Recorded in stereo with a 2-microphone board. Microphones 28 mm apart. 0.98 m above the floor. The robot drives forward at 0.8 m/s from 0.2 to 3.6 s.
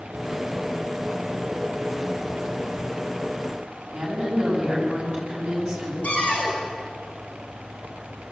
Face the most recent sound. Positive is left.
turn(degrees=45)  # may be behind; listen again after turning